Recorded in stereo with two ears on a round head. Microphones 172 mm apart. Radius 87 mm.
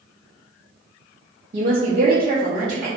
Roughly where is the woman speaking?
Right.